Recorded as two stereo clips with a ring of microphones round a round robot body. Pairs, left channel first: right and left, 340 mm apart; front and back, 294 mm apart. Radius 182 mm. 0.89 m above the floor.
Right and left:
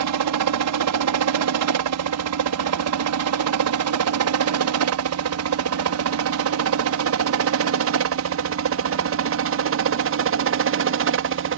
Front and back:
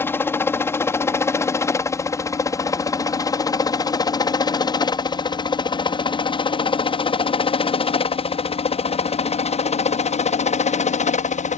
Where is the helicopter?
80° left; by 11.6 s 55° left.